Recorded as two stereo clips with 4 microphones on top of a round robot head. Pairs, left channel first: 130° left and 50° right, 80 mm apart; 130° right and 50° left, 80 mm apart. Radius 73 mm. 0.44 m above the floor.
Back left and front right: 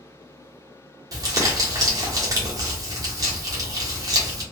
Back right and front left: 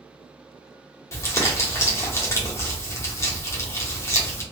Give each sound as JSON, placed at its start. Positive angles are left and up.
{"t": 1.1, "sound": "crumpling", "azimuth_deg": -85, "distance_m": 1.1}